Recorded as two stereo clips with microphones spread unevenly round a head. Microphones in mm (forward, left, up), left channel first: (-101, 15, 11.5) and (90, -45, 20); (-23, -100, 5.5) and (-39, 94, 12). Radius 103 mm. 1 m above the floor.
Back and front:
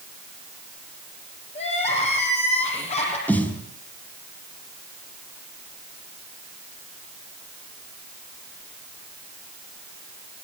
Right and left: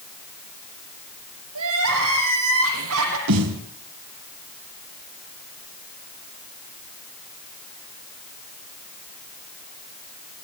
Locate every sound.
1.6 s crying: 100° left, 9 m
3.3 s a snare drum: 80° left, 4.5 m